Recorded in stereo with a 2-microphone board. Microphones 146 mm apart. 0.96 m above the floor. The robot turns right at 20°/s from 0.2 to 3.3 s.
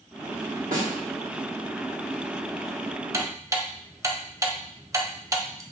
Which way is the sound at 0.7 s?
85° right.